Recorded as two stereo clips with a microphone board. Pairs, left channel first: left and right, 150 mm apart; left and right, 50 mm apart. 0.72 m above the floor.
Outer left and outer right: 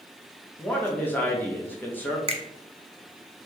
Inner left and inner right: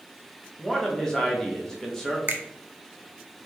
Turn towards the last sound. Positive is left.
turn(degrees=-40)  # may be behind; listen again after turning